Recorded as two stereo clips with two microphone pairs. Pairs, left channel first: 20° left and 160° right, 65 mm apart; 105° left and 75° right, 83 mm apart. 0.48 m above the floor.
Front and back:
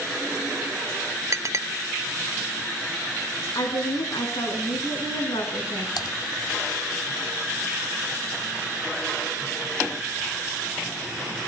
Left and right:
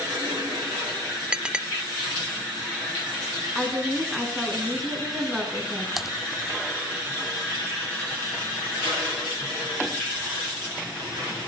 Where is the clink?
150° right, 0.8 m.